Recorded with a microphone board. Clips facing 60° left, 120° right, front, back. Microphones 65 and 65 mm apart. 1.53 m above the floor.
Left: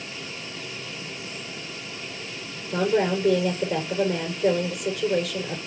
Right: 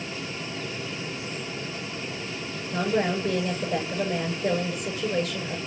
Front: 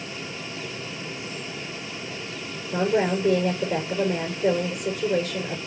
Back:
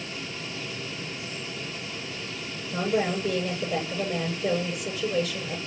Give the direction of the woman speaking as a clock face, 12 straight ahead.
11 o'clock.